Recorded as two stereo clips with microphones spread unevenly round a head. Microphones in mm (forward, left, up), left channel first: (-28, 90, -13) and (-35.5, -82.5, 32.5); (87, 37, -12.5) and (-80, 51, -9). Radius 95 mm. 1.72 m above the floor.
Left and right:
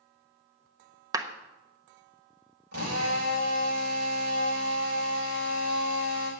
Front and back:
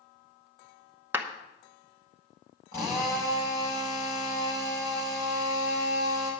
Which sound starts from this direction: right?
A drill, at 2.7 s.